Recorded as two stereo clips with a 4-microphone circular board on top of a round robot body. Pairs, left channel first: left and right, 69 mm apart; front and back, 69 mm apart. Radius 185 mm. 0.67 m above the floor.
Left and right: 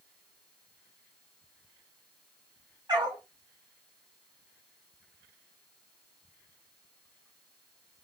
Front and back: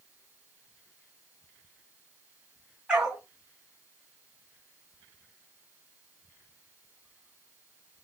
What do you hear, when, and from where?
2.9 s a dog barking: 105° right, 3.5 m